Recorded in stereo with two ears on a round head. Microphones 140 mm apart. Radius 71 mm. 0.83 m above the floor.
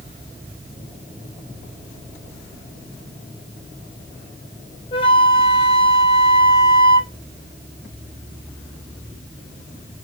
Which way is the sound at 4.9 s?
30° left (ahead or behind).